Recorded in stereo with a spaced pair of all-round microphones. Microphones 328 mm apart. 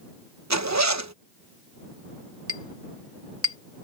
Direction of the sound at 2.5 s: 45° right (ahead or behind).